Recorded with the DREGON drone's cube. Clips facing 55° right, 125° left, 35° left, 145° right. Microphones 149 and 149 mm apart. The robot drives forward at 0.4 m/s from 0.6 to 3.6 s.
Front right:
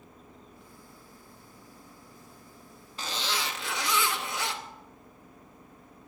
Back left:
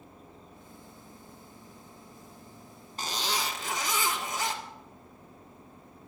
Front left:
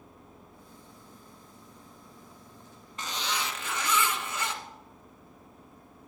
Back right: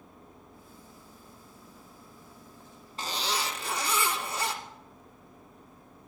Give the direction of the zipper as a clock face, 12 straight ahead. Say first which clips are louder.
Back left 1 dB, back right 2 dB; 7 o'clock.